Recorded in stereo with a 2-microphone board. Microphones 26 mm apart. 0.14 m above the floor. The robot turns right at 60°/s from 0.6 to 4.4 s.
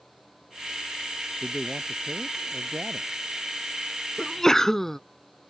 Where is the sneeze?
20° left (ahead or behind).